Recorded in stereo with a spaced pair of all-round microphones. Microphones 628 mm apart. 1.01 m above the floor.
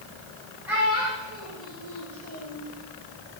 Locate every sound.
0.7 s a child speaking: 5° right (ahead or behind), 4 m; by 2.6 s 40° right (ahead or behind), 4 m